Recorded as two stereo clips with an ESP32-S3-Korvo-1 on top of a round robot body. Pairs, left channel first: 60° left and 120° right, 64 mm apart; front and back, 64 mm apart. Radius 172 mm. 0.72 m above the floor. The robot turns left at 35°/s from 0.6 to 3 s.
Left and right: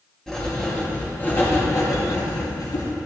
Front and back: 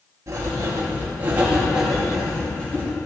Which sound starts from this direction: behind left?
Writing, at 0.3 s.